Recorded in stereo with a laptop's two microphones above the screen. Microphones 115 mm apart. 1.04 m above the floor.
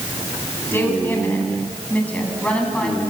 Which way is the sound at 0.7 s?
20° left (ahead or behind).